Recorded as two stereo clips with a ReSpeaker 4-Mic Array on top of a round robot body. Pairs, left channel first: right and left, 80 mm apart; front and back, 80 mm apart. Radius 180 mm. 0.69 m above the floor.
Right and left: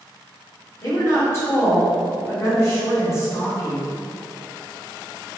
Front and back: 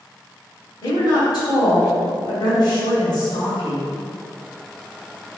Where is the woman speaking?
40° right, 2.5 m.